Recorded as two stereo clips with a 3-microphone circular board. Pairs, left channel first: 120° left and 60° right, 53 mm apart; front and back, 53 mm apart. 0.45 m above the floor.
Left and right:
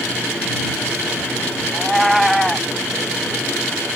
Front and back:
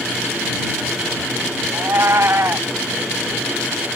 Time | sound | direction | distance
1.7 | a cat meowing | 150° right | ?